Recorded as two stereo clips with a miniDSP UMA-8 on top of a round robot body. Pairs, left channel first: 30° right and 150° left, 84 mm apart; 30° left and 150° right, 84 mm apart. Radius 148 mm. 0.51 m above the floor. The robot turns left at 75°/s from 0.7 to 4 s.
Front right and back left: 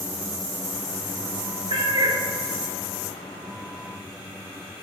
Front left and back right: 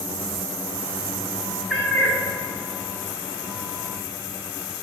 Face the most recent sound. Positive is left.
turn(degrees=-50)